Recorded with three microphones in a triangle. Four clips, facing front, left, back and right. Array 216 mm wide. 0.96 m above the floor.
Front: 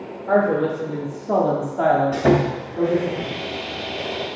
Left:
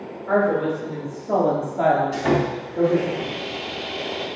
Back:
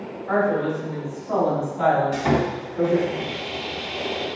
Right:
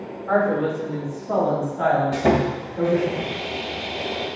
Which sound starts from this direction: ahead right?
Sawing, at 2.1 s.